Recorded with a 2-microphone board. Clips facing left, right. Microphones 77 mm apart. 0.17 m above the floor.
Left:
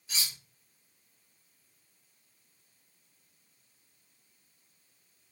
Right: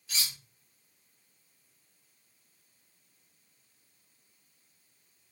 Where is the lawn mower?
I don't hear a lawn mower.